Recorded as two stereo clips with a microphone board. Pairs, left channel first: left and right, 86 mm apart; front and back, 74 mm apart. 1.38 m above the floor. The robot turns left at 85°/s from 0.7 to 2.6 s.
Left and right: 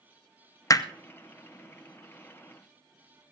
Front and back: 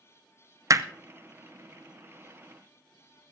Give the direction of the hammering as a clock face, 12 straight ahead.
7 o'clock.